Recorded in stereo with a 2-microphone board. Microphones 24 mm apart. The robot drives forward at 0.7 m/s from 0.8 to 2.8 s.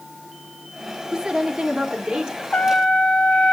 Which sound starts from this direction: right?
A woman speaking, at 1.1 s.